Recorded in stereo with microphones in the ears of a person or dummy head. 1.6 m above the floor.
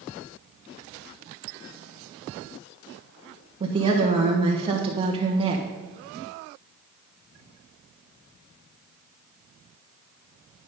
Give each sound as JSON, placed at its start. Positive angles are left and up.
{"t": 3.6, "sound": "a woman speaking", "side_deg": -25, "distance_m": 1.3}